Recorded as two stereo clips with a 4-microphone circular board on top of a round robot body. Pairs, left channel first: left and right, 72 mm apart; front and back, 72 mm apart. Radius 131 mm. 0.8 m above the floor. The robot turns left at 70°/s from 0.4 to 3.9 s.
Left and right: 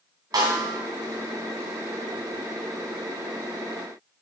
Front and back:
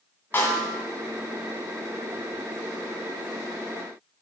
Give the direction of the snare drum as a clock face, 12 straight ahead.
2 o'clock.